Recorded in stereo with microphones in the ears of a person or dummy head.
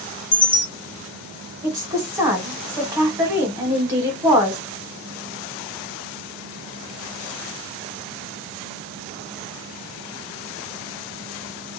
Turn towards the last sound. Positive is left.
turn(degrees=-20)  # may be behind; listen again after turning